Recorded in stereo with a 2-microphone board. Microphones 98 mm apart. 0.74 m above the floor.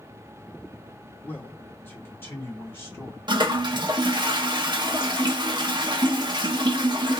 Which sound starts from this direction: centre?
A man speaking, at 1.2 s.